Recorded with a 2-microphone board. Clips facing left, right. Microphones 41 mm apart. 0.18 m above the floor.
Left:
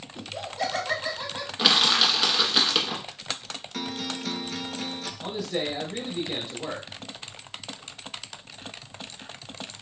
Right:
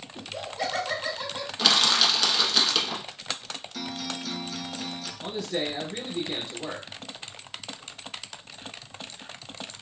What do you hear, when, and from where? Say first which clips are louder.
0.1 s laughter: left 1 dB; 15° right (ahead or behind), 1.5 m; by 1.5 s 10° left (ahead or behind), 1.5 m
1.6 s crushing: left 1 dB; 15° left (ahead or behind), 0.6 m
3.7 s a guitar: left 2 dB; 50° left (ahead or behind), 0.5 m
5.2 s a man speaking: even; 5° left (ahead or behind), 1.0 m